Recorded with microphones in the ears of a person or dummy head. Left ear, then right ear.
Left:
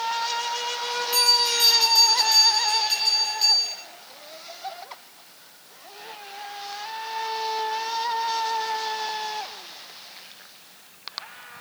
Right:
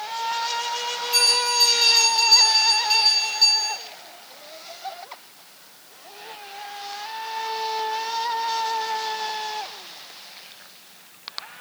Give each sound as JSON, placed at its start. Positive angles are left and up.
{"t": 1.1, "sound": "a bell", "side_deg": 10, "distance_m": 2.0}